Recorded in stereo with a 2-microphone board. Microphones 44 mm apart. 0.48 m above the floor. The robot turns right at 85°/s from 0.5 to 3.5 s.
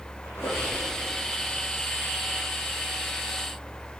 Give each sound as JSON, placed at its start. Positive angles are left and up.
{"t": 0.2, "sound": "a squeak", "azimuth_deg": 65, "distance_m": 8.5}